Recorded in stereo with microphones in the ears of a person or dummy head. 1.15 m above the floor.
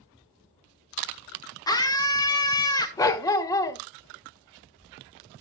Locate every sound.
1.7 s a scream: 15° left (ahead or behind), 1.1 m
3.0 s a dog barking: 20° left (ahead or behind), 0.6 m